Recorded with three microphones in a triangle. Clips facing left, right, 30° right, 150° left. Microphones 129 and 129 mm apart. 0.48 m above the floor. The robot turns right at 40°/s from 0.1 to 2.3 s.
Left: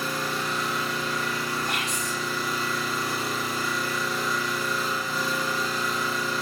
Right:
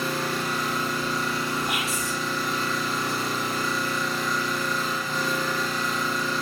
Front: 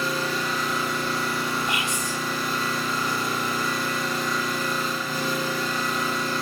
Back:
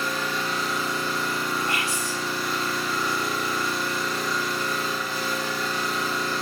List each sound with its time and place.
0.0 s an engine running: 80° right, 7 m; by 6.4 s 5° left, 7 m
1.7 s whispering: 25° right, 1.2 m; by 2.2 s straight ahead, 1.2 m